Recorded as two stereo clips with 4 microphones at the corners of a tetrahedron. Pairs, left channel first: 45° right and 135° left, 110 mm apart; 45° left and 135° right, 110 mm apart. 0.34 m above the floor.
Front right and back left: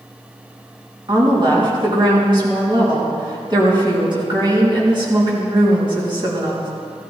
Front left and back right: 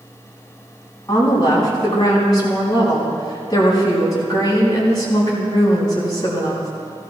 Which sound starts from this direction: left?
A woman speaking, at 1.1 s.